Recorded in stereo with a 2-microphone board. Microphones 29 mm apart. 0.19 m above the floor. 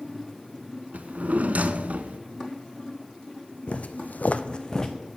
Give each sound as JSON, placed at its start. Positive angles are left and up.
{"t": 0.9, "sound": "a drawer", "side_deg": -60, "distance_m": 0.5}
{"t": 3.7, "sound": "footsteps", "side_deg": 50, "distance_m": 0.8}